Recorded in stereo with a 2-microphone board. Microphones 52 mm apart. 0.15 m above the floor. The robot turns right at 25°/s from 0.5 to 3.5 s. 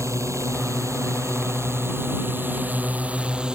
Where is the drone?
95° right; by 3.6 s 20° right.